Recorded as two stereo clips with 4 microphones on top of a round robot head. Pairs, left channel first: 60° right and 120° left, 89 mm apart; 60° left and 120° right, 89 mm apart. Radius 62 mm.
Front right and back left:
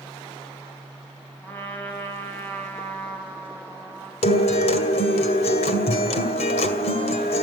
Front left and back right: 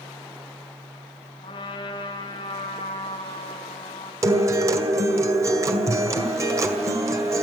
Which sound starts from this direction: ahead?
A trumpet, at 1.4 s.